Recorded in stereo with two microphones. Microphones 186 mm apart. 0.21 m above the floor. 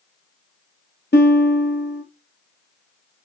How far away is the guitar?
About 0.9 m.